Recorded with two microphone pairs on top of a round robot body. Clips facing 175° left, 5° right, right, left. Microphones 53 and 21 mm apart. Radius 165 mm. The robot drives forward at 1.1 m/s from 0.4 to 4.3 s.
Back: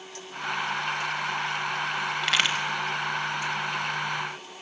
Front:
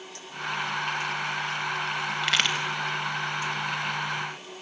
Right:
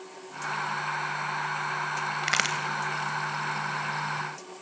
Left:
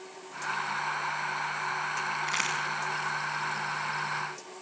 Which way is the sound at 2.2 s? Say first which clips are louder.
Even, right 6 dB; 95° right.